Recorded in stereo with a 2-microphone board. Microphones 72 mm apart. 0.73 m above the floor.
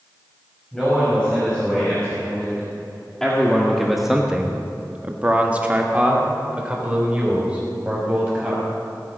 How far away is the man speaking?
About 5 m.